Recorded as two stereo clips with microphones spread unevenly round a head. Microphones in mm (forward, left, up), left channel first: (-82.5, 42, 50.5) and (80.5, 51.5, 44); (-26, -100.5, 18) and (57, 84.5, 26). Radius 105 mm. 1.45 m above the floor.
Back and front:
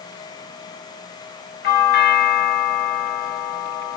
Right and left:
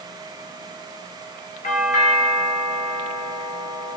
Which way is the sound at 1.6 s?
170° right.